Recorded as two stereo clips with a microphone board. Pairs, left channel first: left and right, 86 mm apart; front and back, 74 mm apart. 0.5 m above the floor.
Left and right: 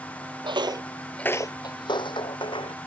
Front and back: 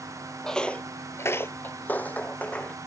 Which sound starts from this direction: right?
Footsteps, at 0.4 s.